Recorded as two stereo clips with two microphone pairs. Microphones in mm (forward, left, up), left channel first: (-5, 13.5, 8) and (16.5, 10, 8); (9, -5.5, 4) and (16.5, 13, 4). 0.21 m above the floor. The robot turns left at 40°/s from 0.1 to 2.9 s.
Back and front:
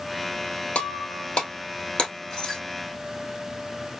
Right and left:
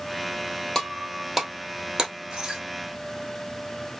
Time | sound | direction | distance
0.8 | breaking glass | 175° right | 2 m